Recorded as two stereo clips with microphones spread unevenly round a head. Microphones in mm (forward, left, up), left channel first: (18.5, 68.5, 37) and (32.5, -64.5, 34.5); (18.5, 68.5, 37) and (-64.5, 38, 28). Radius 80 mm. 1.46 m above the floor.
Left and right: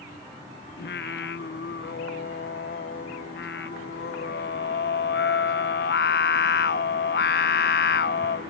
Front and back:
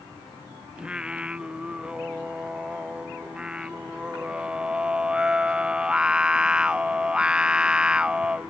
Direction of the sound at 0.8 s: 120° left.